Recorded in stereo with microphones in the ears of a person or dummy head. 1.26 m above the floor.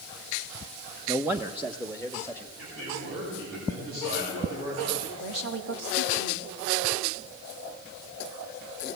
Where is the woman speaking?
90° right, 2.5 m.